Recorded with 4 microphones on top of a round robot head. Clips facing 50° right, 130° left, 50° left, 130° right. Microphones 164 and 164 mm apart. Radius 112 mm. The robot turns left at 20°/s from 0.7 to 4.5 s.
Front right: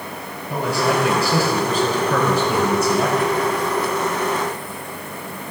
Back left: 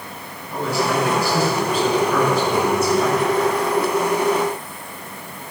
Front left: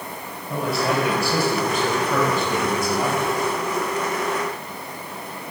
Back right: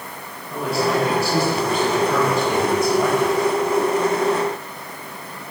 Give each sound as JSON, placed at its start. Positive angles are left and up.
{"t": 0.5, "sound": "a man speaking", "azimuth_deg": -15, "distance_m": 5.5}